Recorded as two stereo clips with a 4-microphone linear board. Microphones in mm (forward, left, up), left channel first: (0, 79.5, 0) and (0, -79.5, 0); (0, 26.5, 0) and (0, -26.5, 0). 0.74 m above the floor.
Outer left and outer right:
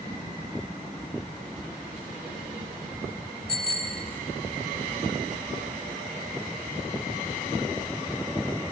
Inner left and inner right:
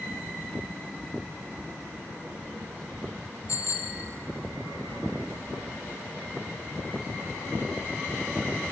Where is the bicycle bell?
80° left, 2 m.